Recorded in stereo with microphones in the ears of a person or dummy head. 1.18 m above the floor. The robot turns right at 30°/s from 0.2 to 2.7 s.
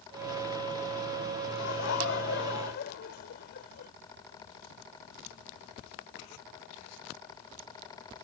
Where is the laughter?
75° left; by 3.9 s 110° left.